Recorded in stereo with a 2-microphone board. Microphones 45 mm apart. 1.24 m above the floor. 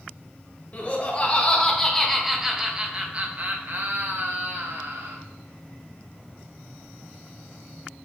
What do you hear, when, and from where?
0.7 s laughter: 35° left (ahead or behind), 1.4 m; by 5.2 s 65° right (ahead or behind), 1.8 m